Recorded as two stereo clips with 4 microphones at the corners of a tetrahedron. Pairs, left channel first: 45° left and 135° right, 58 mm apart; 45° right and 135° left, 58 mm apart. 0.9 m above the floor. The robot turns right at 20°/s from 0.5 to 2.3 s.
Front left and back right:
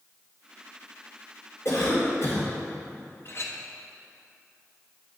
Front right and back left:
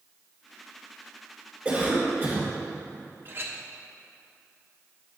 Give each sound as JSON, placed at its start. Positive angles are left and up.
{"t": 1.6, "sound": "a cough", "azimuth_deg": 65, "distance_m": 2.5}
{"t": 3.2, "sound": "a clink", "azimuth_deg": 85, "distance_m": 0.8}